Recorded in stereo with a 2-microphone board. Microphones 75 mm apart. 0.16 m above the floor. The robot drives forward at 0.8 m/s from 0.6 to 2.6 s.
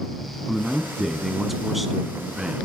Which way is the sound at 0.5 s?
Centre (ahead or behind).